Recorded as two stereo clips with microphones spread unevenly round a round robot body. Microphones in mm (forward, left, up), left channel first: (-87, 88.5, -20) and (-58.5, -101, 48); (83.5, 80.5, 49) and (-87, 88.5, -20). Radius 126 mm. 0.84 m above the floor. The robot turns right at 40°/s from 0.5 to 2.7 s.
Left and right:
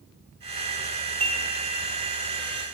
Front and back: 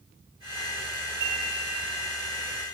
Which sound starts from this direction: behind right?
Dishes clattering, at 1.2 s.